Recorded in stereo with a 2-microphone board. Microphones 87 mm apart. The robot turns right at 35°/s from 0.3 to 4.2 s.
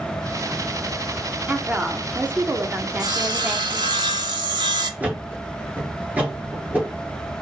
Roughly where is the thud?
Centre.